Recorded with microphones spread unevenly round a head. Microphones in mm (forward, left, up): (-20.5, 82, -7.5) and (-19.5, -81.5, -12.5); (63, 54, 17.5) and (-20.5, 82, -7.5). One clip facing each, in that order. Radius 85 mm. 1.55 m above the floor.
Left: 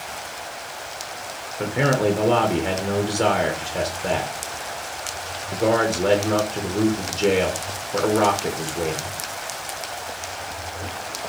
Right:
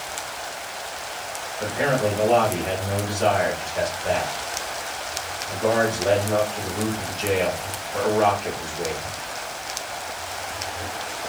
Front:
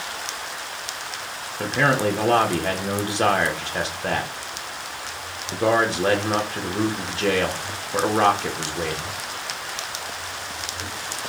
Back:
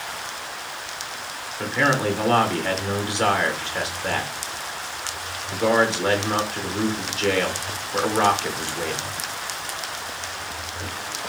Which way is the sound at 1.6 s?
50° left.